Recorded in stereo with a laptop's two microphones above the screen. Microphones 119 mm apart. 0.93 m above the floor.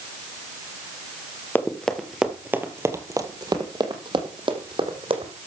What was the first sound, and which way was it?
Running footsteps, 15° left (ahead or behind).